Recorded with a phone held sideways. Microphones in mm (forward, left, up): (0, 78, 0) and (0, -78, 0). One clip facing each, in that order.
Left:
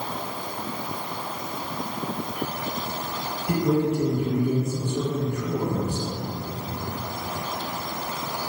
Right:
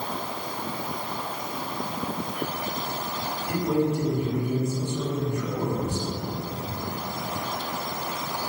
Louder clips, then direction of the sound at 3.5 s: Left 2 dB; 75° left (ahead or behind).